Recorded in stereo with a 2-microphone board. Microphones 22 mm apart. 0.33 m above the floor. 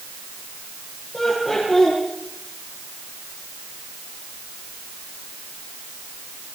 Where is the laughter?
25° left (ahead or behind), 8.5 m.